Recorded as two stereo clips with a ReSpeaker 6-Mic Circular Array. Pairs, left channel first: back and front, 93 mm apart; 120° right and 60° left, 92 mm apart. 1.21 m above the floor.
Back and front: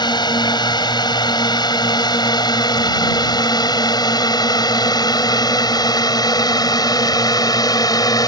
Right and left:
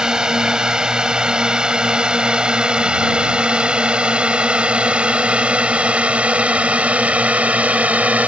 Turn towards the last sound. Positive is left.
turn(degrees=135)